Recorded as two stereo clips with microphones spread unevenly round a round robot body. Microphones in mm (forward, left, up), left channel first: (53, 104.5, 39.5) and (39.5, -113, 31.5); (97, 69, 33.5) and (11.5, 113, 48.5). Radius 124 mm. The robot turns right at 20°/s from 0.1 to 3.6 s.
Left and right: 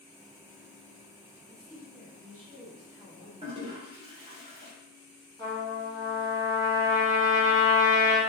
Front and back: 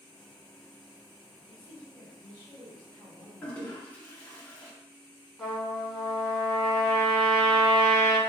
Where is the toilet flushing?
70° right, 1.2 m; by 4.7 s 65° right, 1.2 m.